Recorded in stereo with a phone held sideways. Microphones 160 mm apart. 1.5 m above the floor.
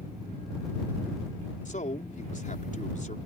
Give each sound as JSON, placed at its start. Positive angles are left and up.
{"t": 1.6, "sound": "a man speaking", "side_deg": 50}